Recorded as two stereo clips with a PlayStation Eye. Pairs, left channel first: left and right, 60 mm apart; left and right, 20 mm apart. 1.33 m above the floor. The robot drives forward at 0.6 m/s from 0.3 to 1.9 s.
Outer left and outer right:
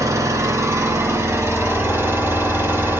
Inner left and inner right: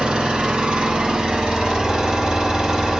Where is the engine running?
60° right (ahead or behind), 1.8 m; by 3.0 s 50° right (ahead or behind), 2 m.